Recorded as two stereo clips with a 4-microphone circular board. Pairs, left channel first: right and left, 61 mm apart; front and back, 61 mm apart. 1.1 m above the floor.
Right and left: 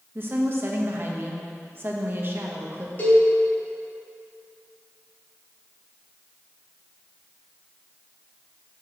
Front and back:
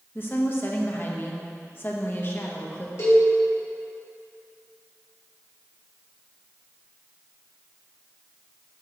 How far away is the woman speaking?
About 1.1 m.